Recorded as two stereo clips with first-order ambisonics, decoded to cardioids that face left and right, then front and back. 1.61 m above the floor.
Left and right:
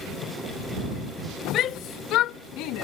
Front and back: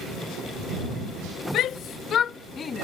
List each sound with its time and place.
1.5 s a shout: 45° left; by 2.8 s 70° left